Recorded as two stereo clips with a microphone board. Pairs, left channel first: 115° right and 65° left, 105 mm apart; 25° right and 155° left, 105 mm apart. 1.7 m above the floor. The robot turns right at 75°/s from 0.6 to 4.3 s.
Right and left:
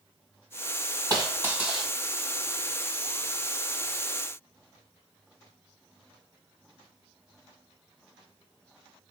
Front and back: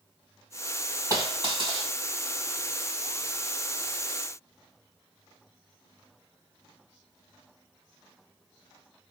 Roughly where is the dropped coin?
Left.